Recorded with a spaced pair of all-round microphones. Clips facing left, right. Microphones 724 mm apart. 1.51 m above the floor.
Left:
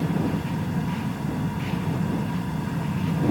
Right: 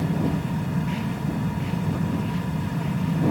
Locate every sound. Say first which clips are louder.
0.0 s a fan: even; 15° right (ahead or behind)